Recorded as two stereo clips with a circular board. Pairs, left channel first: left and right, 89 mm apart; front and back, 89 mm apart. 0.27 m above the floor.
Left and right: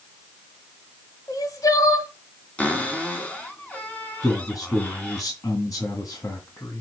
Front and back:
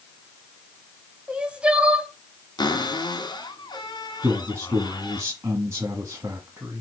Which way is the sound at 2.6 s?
20° left.